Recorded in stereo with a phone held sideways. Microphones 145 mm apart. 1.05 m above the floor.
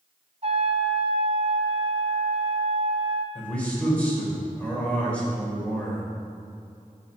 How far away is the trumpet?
About 1.1 m.